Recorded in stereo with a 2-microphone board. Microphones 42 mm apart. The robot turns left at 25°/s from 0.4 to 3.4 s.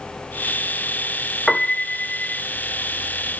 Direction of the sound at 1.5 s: 10° left (ahead or behind).